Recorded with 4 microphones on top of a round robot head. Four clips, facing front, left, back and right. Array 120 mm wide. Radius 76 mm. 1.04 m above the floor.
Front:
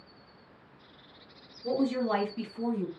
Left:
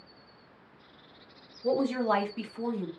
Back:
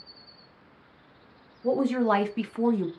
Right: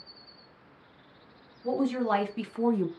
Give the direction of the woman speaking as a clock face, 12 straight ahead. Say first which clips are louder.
Left 1 dB, back 5 dB; 7 o'clock.